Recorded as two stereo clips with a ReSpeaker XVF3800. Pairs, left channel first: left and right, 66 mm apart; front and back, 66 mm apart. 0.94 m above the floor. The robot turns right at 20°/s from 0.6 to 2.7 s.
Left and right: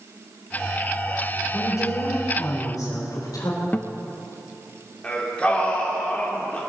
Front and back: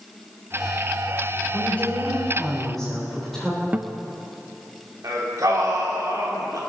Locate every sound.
1.5 s a woman speaking: 60° left, 3.5 m; by 3.6 s 85° left, 3.5 m
3.7 s a guitar: 130° left, 0.6 m
5.0 s singing: 160° left, 3 m